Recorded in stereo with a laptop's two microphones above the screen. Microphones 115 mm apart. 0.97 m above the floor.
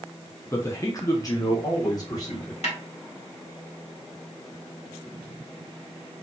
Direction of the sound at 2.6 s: 70° left (ahead or behind).